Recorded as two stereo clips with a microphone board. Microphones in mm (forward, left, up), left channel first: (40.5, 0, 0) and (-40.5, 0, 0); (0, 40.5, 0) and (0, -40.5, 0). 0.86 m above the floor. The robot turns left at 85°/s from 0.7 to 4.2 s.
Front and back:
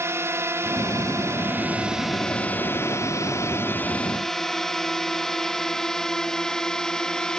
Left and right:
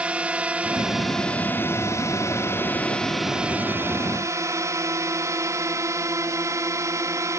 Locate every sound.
0.0 s a drone: 155° right; by 7.4 s 75° right